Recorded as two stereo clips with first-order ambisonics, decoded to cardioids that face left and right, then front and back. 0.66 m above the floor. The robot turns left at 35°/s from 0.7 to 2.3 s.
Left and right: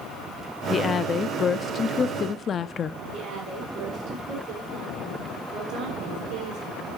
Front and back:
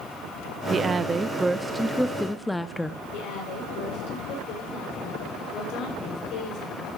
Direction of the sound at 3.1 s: 40° right.